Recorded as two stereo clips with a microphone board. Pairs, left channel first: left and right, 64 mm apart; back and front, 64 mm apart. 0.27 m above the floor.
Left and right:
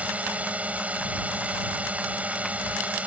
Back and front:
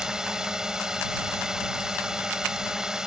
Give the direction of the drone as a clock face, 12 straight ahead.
2 o'clock.